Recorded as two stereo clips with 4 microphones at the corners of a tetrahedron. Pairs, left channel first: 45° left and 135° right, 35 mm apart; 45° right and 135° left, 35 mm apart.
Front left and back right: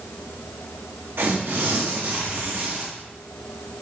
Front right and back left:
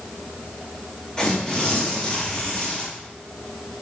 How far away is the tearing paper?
About 2 m.